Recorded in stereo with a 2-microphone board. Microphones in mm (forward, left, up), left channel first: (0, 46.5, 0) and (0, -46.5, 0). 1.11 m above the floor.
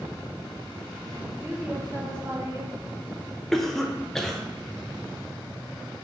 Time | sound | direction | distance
1.4 | a woman speaking | 20° right (ahead or behind) | 1.0 m
3.5 | a cough | 5° left (ahead or behind) | 0.7 m